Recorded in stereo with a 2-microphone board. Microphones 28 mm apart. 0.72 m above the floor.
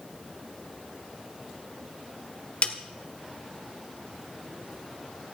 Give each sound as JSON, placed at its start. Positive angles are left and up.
{"t": 2.6, "sound": "a snare drum", "side_deg": 50, "distance_m": 1.1}